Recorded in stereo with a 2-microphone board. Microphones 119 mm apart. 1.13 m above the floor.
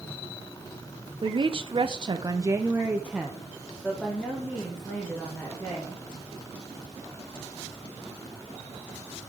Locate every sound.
1.2 s a woman speaking: 40° right (ahead or behind), 0.7 m; by 6.0 s 15° left (ahead or behind), 2 m